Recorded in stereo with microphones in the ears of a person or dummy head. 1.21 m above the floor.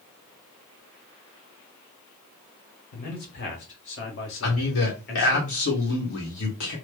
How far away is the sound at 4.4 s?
About 1.0 m.